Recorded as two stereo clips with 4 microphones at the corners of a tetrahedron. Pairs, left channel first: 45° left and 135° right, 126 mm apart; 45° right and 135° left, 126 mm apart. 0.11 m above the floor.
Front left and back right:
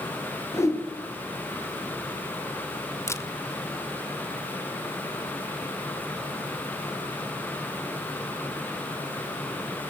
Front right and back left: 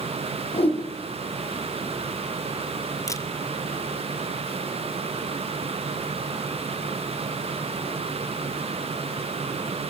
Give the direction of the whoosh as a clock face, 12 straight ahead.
1 o'clock.